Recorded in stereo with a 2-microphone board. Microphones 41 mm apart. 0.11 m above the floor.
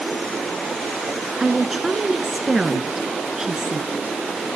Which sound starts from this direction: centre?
A woman speaking, at 1.4 s.